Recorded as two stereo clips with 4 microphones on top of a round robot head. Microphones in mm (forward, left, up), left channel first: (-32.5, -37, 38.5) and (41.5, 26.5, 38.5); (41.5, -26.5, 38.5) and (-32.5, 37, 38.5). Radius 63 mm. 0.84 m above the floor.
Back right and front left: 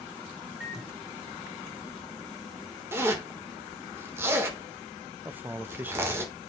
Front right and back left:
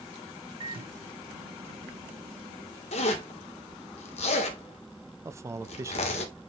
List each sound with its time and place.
0.6 s a microwave: 125° left, 1.8 m
2.9 s a zipper: 25° right, 1.7 m
5.2 s a man speaking: 100° left, 0.8 m